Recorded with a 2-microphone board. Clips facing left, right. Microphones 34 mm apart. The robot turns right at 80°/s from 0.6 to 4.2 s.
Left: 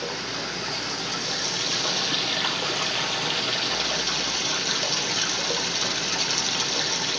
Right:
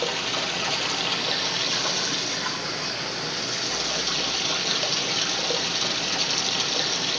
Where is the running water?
95° right, 2 m; by 7.2 s 165° right, 2 m.